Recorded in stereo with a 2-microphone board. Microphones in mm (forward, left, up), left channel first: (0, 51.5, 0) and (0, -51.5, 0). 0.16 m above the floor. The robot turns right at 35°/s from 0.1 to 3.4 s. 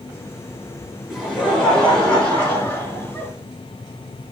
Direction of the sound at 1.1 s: Centre (ahead or behind).